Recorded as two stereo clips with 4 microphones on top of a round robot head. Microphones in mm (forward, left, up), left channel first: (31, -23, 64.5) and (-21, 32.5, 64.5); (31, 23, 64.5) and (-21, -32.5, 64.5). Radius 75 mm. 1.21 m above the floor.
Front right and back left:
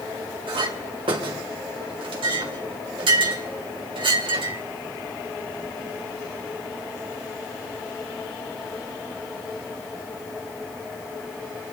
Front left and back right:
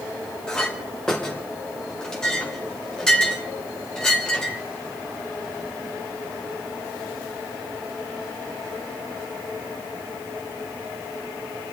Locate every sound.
0.5 s a clink: 130° left, 2.5 m